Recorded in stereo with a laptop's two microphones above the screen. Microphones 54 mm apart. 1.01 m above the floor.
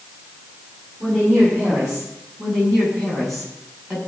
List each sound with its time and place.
1.0 s a woman speaking: 20° right (ahead or behind), 7.5 m; by 2.1 s 10° right (ahead or behind), 6.5 m
2.4 s a woman speaking: 5° left (ahead or behind), 7.5 m